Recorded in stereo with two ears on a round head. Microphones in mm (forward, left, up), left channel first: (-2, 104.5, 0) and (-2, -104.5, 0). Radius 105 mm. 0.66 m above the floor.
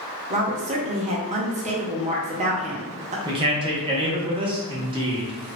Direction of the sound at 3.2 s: 20° right (ahead or behind).